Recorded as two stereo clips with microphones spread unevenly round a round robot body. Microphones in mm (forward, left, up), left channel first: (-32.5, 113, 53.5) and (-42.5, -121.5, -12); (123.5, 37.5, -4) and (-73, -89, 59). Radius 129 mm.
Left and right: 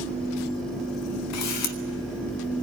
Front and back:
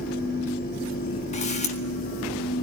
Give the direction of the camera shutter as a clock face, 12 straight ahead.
10 o'clock.